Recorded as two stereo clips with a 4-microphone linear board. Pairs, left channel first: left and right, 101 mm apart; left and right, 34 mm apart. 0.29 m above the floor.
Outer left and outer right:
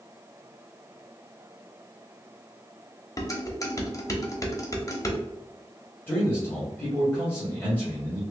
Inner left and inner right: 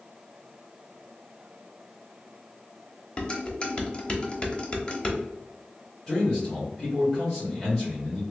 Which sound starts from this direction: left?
Dishes clattering, at 3.2 s.